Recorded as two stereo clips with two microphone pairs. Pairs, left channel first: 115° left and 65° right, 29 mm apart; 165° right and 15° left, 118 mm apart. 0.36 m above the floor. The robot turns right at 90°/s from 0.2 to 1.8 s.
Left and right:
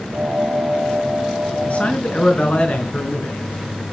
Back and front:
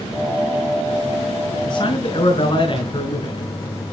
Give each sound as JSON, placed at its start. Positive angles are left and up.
{"t": 1.6, "sound": "a man speaking", "azimuth_deg": 140, "distance_m": 4.5}